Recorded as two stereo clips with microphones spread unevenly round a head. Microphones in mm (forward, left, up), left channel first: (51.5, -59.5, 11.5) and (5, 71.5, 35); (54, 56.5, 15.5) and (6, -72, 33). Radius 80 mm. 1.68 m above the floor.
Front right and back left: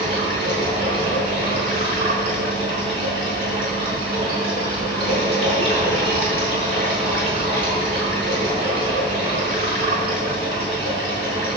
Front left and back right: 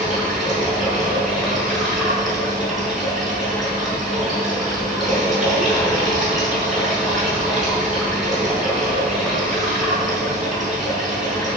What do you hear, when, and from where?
0.0 s running water: 165° left, 5 m